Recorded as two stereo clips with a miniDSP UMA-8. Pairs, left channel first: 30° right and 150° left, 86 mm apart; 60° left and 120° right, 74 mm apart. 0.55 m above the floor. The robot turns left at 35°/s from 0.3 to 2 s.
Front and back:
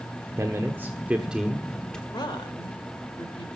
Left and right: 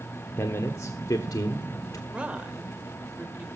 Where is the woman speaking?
45° right, 2.5 m.